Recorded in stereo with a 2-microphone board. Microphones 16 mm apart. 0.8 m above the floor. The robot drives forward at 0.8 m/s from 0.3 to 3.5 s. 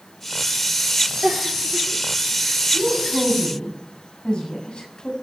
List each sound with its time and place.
1.2 s a giggle: 45° right (ahead or behind), 5.5 m; by 2.6 s 55° right (ahead or behind), 4.5 m
2.7 s a woman speaking: 70° left (ahead or behind), 7 m; by 5.1 s 65° left (ahead or behind), 7 m